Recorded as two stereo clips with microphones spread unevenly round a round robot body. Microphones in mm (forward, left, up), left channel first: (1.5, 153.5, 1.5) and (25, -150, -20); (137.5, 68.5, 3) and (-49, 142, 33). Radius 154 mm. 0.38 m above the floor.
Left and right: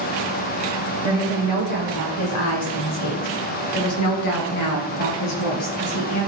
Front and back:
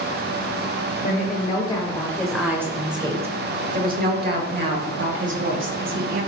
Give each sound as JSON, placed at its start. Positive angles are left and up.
{"t": 1.0, "sound": "a woman speaking", "azimuth_deg": 25, "distance_m": 1.8}